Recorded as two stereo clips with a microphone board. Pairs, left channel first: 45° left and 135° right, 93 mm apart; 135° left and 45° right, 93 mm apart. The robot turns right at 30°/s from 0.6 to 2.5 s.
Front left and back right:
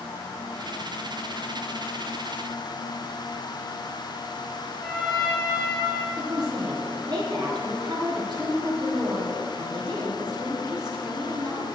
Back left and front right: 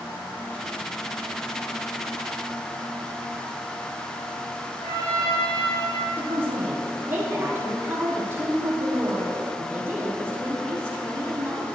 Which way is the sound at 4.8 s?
125° left.